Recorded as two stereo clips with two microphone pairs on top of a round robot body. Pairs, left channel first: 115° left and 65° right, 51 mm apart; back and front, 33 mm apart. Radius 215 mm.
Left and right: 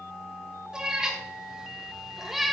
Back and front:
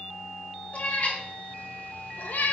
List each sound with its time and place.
0.7 s a cat meowing: 140° right, 3 m; by 2.5 s 155° right, 1.0 m